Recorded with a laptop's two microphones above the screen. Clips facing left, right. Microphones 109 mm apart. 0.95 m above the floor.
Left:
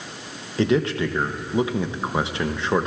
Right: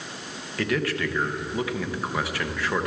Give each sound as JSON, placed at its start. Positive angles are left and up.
{"t": 0.6, "sound": "a man speaking", "side_deg": 20, "distance_m": 0.5}